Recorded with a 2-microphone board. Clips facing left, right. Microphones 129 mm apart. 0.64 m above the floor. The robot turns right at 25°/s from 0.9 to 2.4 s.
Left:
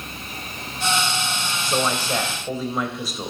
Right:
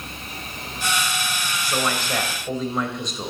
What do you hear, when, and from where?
1.6 s a man speaking: 25° left (ahead or behind), 3.5 m; by 3.3 s 5° left (ahead or behind), 3.5 m